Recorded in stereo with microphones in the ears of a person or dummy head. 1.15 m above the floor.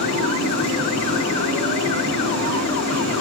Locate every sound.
0.0 s an engine running: 75° right (ahead or behind), 8 m